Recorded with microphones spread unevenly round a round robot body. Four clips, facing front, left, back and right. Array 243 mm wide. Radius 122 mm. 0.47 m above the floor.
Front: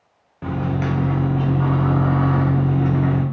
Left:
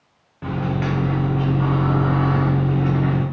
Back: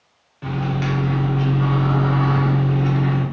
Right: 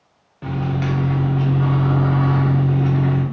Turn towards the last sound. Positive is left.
turn(degrees=-15)